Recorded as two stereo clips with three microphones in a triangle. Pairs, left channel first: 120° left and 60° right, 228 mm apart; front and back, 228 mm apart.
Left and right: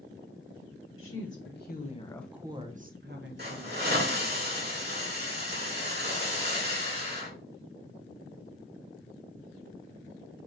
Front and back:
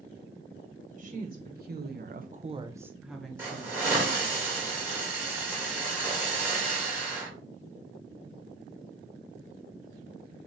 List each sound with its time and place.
1.0 s a woman speaking: 130° left, 1.1 m; by 4.3 s 80° right, 1.6 m
3.4 s a hiss: 100° right, 1.8 m